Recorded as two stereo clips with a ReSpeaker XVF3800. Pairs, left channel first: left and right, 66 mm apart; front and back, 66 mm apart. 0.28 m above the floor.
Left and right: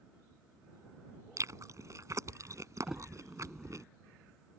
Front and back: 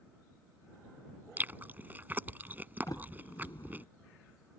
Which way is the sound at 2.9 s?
5° right.